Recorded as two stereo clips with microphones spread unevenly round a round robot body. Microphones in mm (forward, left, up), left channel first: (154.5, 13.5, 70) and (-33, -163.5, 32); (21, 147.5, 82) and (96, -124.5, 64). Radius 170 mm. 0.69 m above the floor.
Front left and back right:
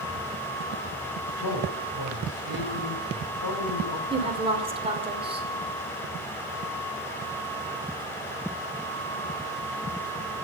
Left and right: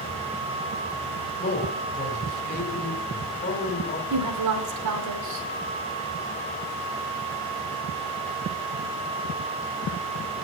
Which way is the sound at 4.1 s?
70° right.